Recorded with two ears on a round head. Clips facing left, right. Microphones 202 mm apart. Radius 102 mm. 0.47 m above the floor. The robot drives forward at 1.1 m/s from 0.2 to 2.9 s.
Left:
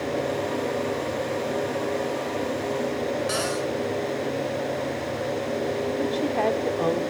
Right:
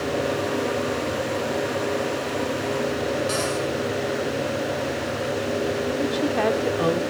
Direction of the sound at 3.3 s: 10° left (ahead or behind).